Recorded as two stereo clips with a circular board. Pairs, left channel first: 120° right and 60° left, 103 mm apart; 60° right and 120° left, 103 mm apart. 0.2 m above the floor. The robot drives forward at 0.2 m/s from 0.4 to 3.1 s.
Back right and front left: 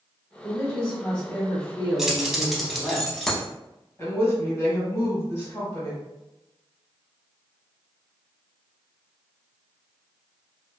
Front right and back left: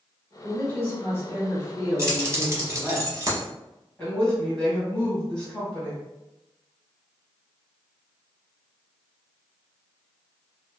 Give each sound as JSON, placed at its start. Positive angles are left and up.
{"t": 0.4, "sound": "a man speaking", "azimuth_deg": -55, "distance_m": 1.6}
{"t": 2.0, "sound": "keys jangling", "azimuth_deg": 140, "distance_m": 0.7}
{"t": 4.0, "sound": "a woman speaking", "azimuth_deg": -130, "distance_m": 1.4}